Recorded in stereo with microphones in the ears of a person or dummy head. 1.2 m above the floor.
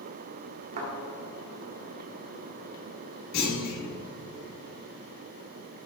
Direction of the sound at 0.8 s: 45° right (ahead or behind).